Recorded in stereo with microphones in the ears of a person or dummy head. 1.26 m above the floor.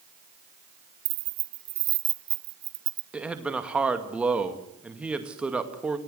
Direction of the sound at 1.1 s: 40° right (ahead or behind).